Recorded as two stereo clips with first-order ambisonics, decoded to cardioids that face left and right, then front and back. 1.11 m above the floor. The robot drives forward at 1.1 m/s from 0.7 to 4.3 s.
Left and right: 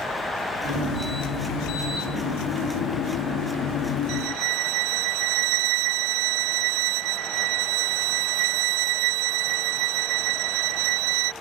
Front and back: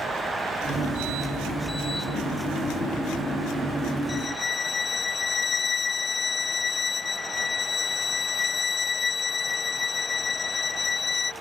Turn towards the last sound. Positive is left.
turn(degrees=-70)